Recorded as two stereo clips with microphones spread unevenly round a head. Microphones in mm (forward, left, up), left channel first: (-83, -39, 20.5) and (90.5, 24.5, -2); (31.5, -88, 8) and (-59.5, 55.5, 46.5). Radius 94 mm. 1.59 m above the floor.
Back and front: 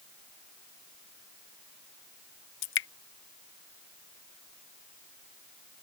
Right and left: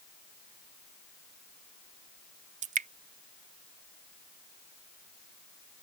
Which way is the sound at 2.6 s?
170° left.